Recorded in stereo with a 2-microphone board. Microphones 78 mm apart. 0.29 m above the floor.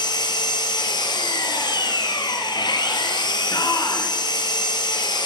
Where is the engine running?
70° left (ahead or behind), 1.7 m.